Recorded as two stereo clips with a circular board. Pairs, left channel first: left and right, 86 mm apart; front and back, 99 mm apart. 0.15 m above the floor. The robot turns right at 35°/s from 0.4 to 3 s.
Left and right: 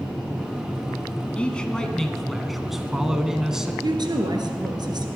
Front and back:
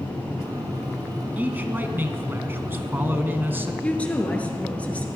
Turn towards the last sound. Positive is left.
turn(degrees=-75)